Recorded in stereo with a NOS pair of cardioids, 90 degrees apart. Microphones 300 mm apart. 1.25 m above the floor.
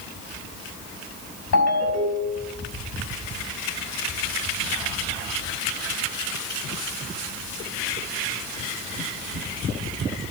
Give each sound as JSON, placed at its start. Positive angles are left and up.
{"t": 1.5, "sound": "a ringtone", "azimuth_deg": 55, "distance_m": 5.0}